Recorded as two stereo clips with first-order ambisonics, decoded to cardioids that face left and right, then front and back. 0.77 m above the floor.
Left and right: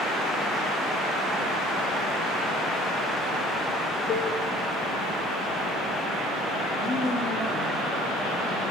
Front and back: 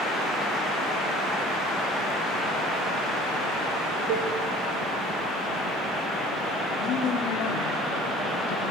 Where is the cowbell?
145° left, 2.5 m.